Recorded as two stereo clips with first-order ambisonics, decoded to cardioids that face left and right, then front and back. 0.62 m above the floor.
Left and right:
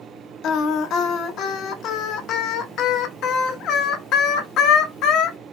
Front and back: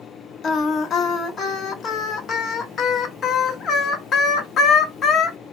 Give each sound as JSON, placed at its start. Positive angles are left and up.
{"t": 0.4, "sound": "singing", "azimuth_deg": 55, "distance_m": 0.8}